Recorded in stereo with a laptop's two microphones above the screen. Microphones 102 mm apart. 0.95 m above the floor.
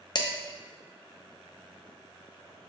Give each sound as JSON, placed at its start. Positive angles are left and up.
{"t": 0.1, "sound": "dishes clattering", "side_deg": 45, "distance_m": 0.6}